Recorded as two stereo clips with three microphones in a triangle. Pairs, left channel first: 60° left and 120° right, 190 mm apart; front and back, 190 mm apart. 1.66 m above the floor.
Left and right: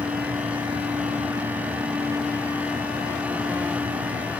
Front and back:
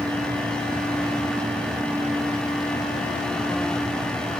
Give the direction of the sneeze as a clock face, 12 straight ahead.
No sneeze in this recording.